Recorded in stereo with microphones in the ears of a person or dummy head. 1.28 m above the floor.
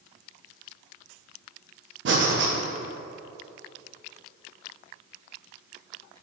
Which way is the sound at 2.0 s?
65° right (ahead or behind).